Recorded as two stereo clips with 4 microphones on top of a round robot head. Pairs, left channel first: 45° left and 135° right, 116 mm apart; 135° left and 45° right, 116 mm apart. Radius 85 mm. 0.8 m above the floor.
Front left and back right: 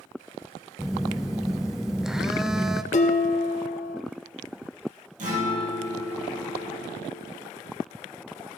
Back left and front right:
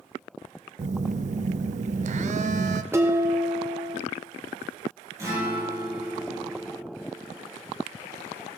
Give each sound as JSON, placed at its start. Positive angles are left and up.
{"t": 0.8, "sound": "a phone buzzing", "azimuth_deg": -50, "distance_m": 0.5}
{"t": 2.9, "sound": "dishes clattering", "azimuth_deg": 25, "distance_m": 1.2}
{"t": 5.2, "sound": "a guitar", "azimuth_deg": -110, "distance_m": 4.5}